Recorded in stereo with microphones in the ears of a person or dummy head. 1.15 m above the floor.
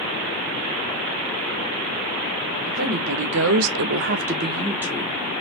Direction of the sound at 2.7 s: 40° right (ahead or behind).